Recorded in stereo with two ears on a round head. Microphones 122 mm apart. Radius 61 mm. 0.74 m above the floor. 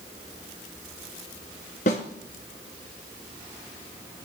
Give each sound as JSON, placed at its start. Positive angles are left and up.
{"t": 1.9, "sound": "a snare drum", "side_deg": 55, "distance_m": 2.5}